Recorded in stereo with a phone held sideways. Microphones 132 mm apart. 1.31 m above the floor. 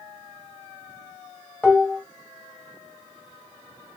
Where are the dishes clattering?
10° left (ahead or behind), 1.4 m.